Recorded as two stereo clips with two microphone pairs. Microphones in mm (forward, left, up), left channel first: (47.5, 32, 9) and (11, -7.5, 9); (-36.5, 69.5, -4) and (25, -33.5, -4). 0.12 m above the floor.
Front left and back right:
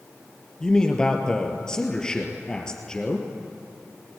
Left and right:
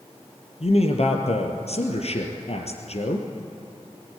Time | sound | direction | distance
0.6 | a man speaking | 120° left | 3 m